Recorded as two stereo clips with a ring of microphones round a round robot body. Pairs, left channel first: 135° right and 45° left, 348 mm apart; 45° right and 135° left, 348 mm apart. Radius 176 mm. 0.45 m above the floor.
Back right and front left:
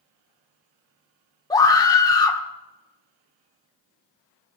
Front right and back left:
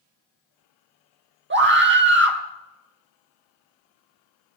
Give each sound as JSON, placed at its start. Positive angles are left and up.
{"t": 1.5, "sound": "a scream", "azimuth_deg": 155, "distance_m": 1.1}